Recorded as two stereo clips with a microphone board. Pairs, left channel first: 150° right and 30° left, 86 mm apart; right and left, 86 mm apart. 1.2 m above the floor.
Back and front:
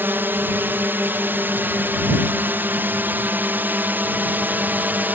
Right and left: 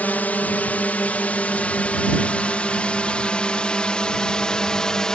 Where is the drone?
25° right; by 5.2 s 15° right.